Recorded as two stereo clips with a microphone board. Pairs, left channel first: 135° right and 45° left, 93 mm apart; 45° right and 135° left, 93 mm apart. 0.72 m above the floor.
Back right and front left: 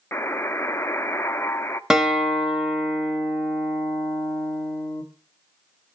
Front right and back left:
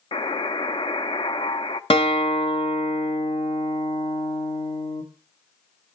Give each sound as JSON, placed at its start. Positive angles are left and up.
{"t": 0.1, "sound": "a buzzer", "azimuth_deg": -70, "distance_m": 0.7}
{"t": 1.9, "sound": "a guitar", "azimuth_deg": -40, "distance_m": 1.6}